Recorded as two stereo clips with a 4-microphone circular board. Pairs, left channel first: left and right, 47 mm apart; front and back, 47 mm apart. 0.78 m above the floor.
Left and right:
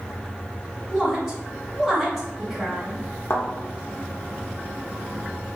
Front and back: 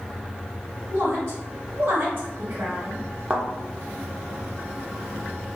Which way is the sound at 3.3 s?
110° left.